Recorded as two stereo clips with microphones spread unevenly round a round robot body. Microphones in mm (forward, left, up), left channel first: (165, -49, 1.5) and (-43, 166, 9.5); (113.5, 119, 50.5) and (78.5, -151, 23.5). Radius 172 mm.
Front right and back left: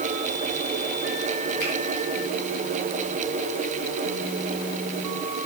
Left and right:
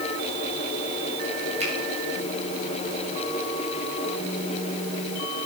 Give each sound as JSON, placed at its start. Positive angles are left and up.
{"t": 1.6, "sound": "a finger snap", "azimuth_deg": -35, "distance_m": 6.0}